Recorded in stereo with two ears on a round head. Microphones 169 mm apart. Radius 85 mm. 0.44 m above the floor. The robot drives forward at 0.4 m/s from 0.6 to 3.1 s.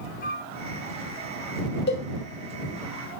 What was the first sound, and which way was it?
A flute, 45° left (ahead or behind).